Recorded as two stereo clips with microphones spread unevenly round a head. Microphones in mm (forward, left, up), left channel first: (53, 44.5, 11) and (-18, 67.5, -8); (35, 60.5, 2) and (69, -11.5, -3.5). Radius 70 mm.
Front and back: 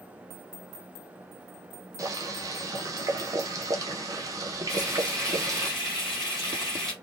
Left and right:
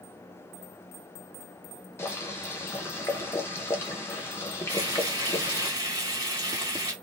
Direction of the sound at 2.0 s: 135° left.